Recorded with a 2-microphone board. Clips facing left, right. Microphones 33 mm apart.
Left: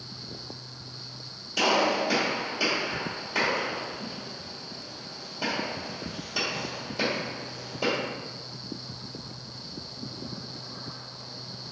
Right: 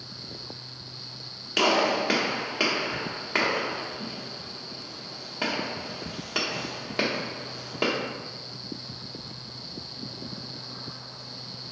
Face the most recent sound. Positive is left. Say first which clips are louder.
# right 1 dB
turn(degrees=-65)  # may be behind; listen again after turning